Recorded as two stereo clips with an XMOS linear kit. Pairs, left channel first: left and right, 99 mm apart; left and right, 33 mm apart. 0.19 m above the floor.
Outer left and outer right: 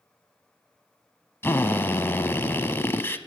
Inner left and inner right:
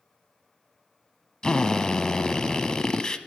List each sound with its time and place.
1.4 s a drill: 25° left (ahead or behind), 0.7 m